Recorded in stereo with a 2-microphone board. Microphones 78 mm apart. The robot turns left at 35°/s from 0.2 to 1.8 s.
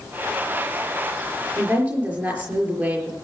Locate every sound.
1.6 s a woman speaking: 25° right (ahead or behind), 5.5 m; by 3.1 s 15° right (ahead or behind), 5.5 m